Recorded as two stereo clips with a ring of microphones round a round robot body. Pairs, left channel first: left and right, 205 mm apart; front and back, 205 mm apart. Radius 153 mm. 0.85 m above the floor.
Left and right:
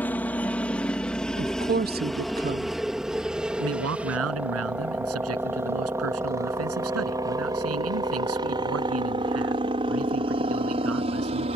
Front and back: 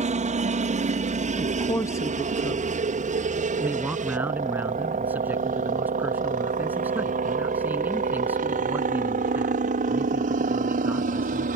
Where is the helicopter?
165° left; by 11.6 s 145° right.